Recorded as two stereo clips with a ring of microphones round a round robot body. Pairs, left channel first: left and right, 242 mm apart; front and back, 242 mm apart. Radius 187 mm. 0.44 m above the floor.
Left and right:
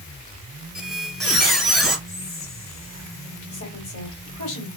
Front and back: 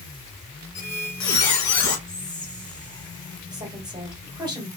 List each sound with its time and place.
0.8 s a squeak: straight ahead, 1.5 m
2.1 s whispering: 70° left, 1.8 m
3.5 s a woman speaking: 105° left, 2 m